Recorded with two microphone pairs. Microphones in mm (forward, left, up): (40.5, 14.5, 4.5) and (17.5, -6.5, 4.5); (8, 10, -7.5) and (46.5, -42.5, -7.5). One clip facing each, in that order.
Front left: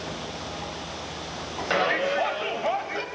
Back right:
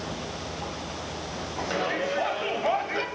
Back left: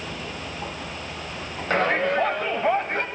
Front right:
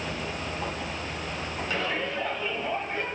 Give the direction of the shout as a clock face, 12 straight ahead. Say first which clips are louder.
Front left 5 dB, back left 10 dB; 9 o'clock.